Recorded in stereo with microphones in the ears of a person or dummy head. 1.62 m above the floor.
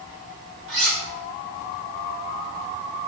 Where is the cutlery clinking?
75° right (ahead or behind), 2 m.